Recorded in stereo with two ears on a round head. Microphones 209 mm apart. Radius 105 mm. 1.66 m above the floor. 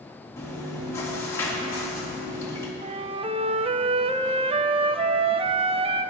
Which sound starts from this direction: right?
A flute, at 2.8 s.